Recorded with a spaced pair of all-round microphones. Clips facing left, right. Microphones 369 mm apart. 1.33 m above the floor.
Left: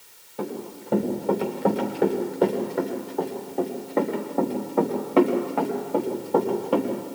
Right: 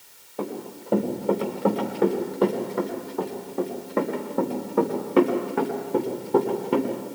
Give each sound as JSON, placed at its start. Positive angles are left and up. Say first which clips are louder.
{"t": 0.4, "sound": "running footsteps", "louder": "even", "side_deg": 0, "distance_m": 8.0}